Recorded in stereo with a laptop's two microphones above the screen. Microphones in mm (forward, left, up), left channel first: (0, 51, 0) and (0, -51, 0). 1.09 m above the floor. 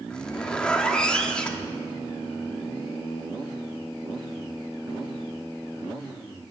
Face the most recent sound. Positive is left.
turn(degrees=10)  # may be behind; listen again after turning